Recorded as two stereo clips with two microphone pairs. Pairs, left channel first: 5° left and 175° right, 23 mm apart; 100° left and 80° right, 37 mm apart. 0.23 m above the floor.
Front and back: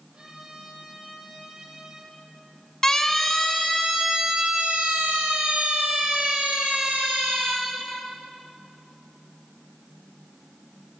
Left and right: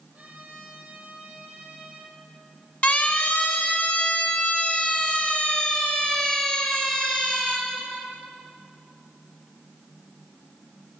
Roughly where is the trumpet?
Behind right.